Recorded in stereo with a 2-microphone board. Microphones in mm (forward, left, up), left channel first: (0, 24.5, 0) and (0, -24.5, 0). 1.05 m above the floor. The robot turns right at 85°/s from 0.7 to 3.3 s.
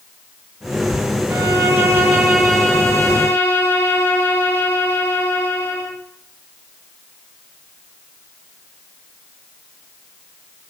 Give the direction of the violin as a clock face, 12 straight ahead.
3 o'clock.